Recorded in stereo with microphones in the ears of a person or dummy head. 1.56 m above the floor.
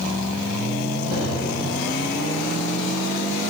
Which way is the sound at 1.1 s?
75° left (ahead or behind).